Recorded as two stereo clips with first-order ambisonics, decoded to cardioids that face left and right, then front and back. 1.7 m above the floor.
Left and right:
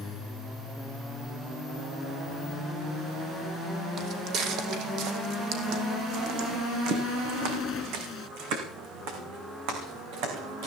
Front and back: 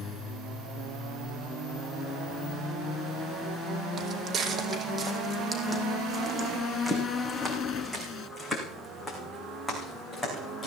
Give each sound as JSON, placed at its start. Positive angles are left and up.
{"t": 4.0, "sound": "footsteps", "azimuth_deg": -125, "distance_m": 2.5}